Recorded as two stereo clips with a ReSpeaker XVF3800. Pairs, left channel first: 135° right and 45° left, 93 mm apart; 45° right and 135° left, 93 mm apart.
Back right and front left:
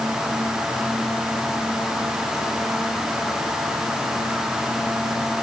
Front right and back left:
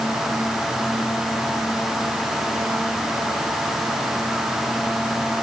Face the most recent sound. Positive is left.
No sound to turn to.